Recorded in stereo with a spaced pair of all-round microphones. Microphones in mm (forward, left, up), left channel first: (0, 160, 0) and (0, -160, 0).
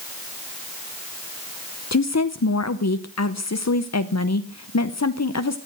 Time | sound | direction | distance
1.9 | a woman speaking | 55° left (ahead or behind) | 0.7 m